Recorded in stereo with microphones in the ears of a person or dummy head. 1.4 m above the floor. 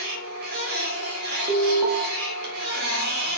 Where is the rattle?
I don't hear a rattle.